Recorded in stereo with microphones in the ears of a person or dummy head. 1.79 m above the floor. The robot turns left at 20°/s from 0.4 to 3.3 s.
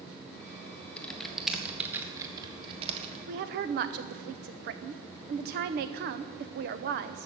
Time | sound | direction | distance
1.0 | typing on a keyboard | 5° left (ahead or behind) | 1.5 m
3.3 | a woman speaking | 45° right (ahead or behind) | 0.8 m